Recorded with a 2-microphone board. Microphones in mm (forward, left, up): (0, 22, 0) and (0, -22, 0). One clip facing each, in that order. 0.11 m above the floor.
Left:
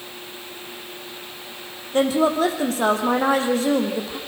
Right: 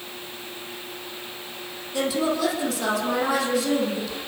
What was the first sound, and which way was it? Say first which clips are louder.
A woman speaking: left 5 dB; 35° left (ahead or behind).